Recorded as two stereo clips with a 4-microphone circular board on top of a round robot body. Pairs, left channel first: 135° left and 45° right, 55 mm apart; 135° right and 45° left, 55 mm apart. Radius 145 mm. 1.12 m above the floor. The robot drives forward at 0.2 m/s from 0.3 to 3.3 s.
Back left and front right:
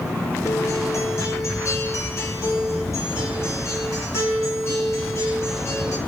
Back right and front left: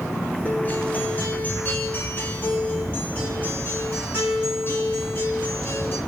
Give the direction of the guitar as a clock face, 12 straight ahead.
7 o'clock.